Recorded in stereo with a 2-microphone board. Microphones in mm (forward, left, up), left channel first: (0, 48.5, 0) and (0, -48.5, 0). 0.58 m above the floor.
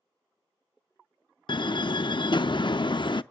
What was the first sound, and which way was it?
A door slam, 55° left (ahead or behind).